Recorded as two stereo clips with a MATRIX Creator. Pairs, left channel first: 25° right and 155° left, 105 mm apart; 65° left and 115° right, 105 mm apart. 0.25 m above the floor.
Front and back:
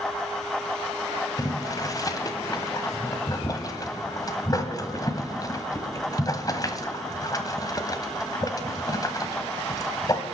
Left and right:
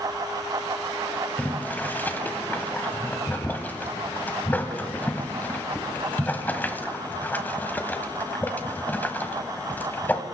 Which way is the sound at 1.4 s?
5° left.